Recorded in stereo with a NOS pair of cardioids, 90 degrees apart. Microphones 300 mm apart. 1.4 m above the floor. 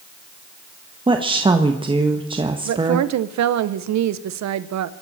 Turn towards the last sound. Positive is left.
turn(degrees=-65)